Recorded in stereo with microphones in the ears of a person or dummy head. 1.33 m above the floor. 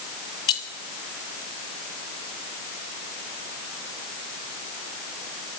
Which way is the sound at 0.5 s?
25° left (ahead or behind).